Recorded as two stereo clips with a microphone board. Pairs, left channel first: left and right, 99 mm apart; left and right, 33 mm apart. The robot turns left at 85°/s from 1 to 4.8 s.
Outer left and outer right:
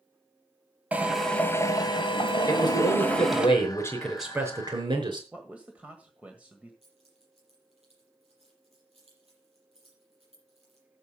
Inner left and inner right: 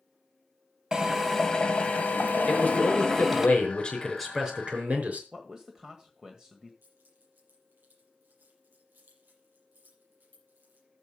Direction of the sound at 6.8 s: 85° right.